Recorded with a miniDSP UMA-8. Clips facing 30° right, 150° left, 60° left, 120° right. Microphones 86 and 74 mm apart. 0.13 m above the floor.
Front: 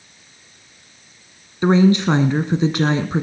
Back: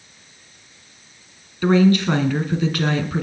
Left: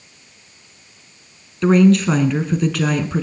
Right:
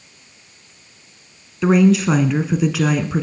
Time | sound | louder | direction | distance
1.6 | a woman speaking | front 1 dB, left 1 dB | 45° right | 1.2 m